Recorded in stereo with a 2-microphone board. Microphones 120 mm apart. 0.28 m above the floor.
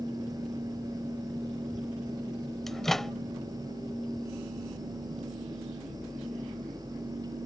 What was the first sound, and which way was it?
A microwave, 5° left (ahead or behind).